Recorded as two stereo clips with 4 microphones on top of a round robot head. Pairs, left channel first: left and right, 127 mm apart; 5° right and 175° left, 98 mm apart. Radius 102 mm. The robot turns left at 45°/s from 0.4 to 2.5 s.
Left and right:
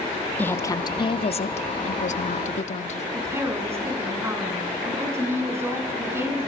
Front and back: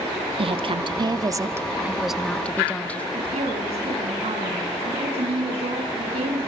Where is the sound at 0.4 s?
165° left, 1.5 m; by 3.0 s 70° left, 1.5 m.